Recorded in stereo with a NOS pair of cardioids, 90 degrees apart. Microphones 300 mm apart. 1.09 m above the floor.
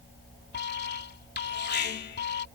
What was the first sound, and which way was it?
An alarm, 35° left.